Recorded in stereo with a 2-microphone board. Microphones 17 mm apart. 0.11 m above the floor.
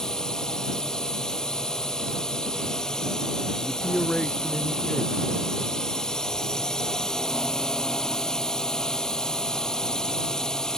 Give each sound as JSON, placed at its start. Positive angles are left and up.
{"t": 0.0, "sound": "a drone", "side_deg": 40}
{"t": 3.6, "sound": "a man speaking", "side_deg": 65}